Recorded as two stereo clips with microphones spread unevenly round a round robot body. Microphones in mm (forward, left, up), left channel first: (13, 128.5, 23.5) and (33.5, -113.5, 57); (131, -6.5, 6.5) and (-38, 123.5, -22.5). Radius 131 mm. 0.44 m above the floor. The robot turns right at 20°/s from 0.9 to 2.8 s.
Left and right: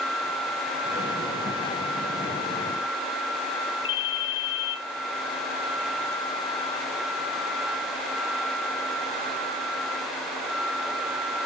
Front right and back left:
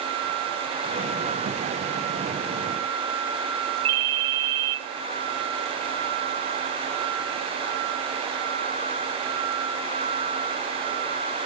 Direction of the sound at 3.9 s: 135° left.